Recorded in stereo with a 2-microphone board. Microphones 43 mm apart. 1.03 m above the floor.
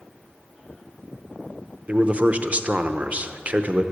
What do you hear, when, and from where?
1.9 s a man speaking: 30° right (ahead or behind), 0.7 m